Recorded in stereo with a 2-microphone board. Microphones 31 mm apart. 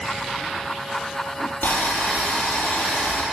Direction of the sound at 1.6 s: 80° left.